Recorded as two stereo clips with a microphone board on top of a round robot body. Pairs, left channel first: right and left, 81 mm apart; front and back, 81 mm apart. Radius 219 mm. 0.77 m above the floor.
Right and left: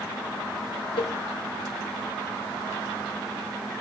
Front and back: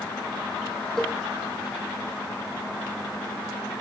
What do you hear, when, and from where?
1.0 s a cowbell: 85° right, 0.7 m